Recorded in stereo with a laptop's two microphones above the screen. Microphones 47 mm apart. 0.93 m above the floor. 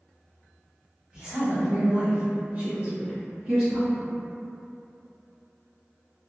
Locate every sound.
1.1 s a woman speaking: 20° right (ahead or behind), 1.1 m